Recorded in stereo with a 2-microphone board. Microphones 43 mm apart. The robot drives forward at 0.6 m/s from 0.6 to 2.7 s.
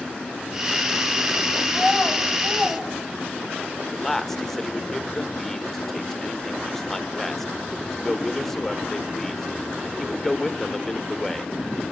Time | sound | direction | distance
1.7 | a child speaking | centre (ahead or behind) | 3 m
3.9 | a man speaking | 10° left (ahead or behind) | 1.2 m